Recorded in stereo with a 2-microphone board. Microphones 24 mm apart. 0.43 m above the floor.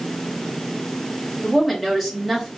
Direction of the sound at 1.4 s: 5° right (ahead or behind).